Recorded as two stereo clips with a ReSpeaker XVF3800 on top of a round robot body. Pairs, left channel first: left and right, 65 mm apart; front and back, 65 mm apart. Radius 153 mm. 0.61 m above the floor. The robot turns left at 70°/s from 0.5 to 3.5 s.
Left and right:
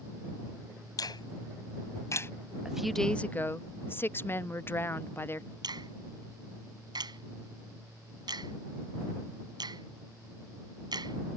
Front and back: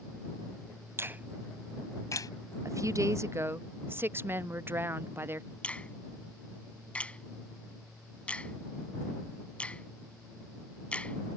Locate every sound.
1.0 s a finger snap: 125° left; by 2.3 s 30° left
2.6 s a woman speaking: 165° right; by 5.5 s 135° left
5.6 s a finger snap: 75° right